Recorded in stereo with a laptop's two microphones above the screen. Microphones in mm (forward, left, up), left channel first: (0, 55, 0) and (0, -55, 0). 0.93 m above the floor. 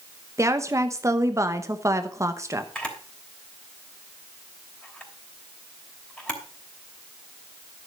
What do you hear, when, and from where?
0.4 s a woman speaking: 25° right (ahead or behind), 0.9 m
2.8 s a camera shutter: 10° left (ahead or behind), 3 m